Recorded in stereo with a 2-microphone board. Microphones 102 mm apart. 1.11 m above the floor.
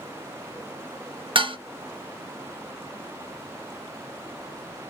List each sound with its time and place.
1.4 s dishes clattering: 55° right (ahead or behind), 0.8 m